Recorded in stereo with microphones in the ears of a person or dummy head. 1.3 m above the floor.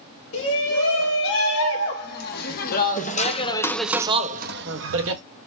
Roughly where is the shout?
Left.